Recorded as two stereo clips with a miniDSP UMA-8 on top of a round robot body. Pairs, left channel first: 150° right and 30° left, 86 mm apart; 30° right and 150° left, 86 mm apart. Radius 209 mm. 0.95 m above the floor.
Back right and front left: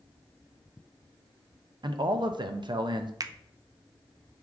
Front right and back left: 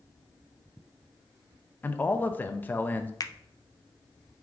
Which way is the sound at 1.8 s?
35° left.